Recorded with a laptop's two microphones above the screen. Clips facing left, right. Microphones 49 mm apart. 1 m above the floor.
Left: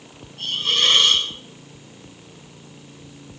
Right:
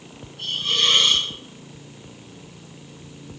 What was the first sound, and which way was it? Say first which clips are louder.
A hiss: left 2 dB; 65° left (ahead or behind).